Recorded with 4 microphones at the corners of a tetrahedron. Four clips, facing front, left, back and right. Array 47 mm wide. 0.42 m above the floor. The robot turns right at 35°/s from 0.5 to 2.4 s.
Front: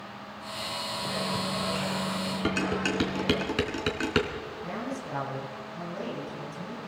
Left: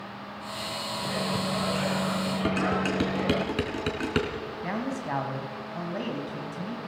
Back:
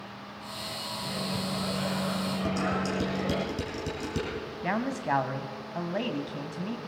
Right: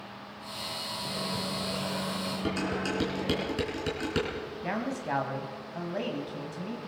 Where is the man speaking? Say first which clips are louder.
Left 1 dB, back 8 dB; 175° left, 3 m.